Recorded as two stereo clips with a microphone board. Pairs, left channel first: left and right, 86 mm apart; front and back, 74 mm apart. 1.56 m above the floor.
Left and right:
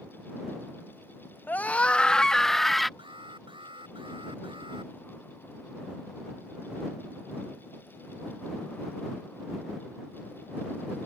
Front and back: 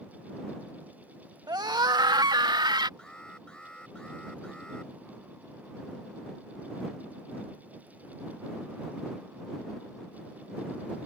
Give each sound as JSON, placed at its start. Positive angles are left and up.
{"t": 1.5, "sound": "a scream", "azimuth_deg": 155}
{"t": 3.0, "sound": "an alarm", "azimuth_deg": -80}